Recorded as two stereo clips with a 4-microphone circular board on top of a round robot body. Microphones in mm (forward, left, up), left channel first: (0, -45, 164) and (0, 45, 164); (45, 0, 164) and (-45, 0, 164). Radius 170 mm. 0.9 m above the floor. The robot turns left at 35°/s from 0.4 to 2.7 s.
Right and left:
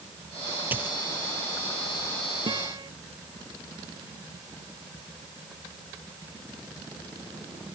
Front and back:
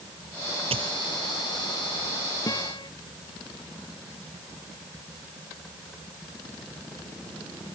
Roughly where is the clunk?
I don't hear a clunk.